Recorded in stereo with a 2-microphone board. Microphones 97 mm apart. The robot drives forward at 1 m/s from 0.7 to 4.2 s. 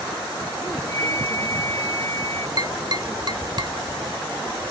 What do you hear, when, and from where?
0.9 s a flute: 30° left (ahead or behind); by 2.5 s 35° left (ahead or behind)
2.6 s tapping: 45° right (ahead or behind); by 3.8 s 50° right (ahead or behind)